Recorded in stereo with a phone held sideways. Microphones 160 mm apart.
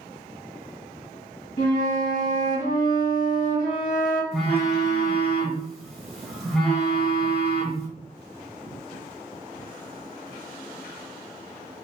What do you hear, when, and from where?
1.6 s a flute: 65° left (ahead or behind), 1.8 m
4.3 s a phone buzzing: centre (ahead or behind), 1.2 m